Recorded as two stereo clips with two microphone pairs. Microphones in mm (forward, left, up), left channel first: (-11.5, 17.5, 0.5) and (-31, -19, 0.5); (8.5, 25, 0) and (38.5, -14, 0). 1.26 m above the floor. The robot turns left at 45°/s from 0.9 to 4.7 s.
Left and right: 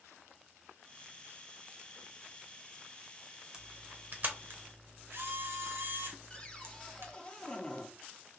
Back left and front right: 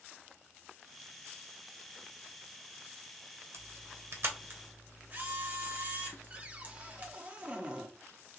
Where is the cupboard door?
5° left, 0.8 m.